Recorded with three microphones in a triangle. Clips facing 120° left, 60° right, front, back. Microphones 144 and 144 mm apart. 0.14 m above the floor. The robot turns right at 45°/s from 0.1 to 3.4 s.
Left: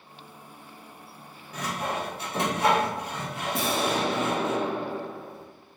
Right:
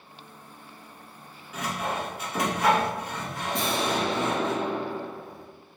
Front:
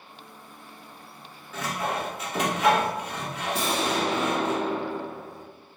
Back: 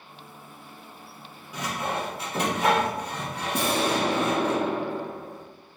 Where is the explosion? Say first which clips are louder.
Even, back 2 dB; 155° right, 0.6 m.